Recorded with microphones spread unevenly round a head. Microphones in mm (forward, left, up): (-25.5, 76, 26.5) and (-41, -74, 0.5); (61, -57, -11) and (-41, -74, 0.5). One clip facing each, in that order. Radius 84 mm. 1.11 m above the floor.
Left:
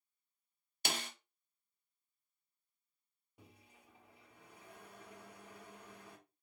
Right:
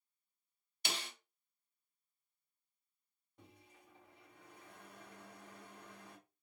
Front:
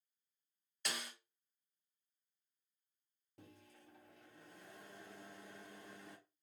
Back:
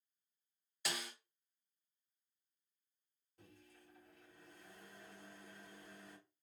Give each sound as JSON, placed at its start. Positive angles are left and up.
{"t": 0.8, "sound": "a snare drum", "azimuth_deg": 100, "distance_m": 0.7}
{"t": 3.4, "sound": "a microwave", "azimuth_deg": 0, "distance_m": 0.8}